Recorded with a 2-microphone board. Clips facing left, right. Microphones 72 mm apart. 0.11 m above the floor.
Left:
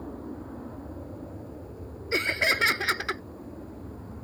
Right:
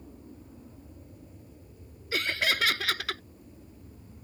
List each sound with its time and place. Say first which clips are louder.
0.0 s an aircraft: left 11 dB; 65° left (ahead or behind); by 4.2 s 60° left (ahead or behind)
2.1 s laughter: left 3 dB; 25° left (ahead or behind)